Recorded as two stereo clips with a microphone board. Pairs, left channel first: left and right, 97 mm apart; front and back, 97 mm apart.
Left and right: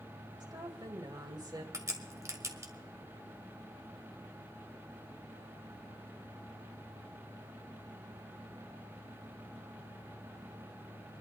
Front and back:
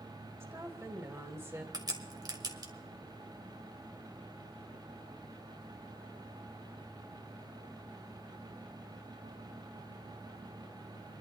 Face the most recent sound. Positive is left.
turn(degrees=-140)